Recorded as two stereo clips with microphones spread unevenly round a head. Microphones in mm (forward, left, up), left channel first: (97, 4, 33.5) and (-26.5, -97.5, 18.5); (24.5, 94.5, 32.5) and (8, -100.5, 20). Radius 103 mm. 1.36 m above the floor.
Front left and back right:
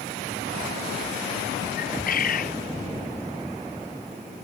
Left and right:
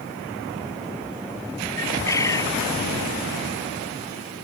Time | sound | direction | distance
1.8 | a bird | 10° left | ?